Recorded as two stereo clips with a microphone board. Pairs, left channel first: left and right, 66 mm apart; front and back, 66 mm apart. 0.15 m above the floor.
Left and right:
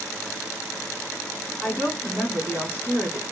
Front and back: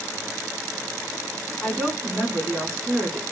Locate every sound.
1.6 s a woman speaking: 65° left, 1.8 m